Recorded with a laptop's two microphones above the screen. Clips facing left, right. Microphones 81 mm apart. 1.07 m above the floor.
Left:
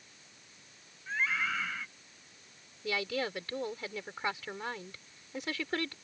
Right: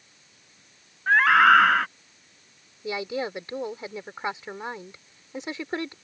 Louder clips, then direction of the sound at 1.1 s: Right 17 dB; 65° right (ahead or behind).